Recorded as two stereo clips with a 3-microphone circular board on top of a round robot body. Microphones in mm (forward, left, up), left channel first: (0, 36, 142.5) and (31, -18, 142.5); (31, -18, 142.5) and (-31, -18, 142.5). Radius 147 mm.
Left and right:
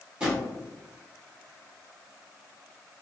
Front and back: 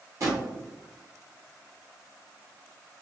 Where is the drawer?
135° right, 1.1 m.